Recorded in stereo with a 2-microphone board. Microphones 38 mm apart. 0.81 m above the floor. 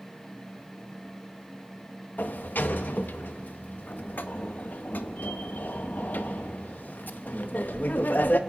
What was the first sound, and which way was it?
A sliding door, 50° left (ahead or behind).